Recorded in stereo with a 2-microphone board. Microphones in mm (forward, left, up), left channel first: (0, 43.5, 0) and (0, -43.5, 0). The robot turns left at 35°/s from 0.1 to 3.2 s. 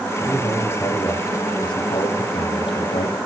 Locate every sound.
0.2 s a man speaking: 170° left, 5 m; by 3.2 s 65° left, 5 m